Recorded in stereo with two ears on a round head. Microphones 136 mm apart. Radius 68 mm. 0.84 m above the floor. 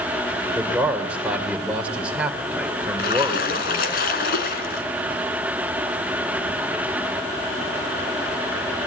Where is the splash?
70° left (ahead or behind), 3 m.